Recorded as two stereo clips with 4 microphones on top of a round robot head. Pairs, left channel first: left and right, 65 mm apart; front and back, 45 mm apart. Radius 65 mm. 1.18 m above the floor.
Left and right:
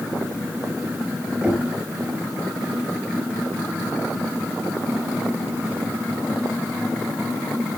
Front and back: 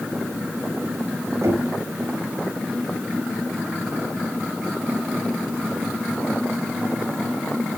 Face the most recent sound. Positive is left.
turn(degrees=-165)